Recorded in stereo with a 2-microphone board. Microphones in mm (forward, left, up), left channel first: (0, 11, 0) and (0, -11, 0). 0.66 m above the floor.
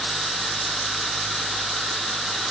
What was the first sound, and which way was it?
Only background noise.